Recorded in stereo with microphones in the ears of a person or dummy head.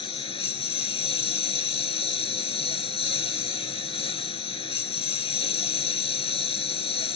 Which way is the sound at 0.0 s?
30° left (ahead or behind).